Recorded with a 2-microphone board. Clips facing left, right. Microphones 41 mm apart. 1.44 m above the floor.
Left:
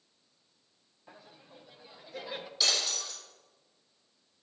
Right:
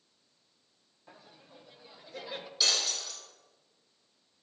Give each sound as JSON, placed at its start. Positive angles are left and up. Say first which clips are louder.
{"t": 1.1, "sound": "laughter", "louder": "left 1 dB", "side_deg": 5, "distance_m": 1.0}
{"t": 2.6, "sound": "breaking glass", "louder": "even", "side_deg": 0, "distance_m": 4.5}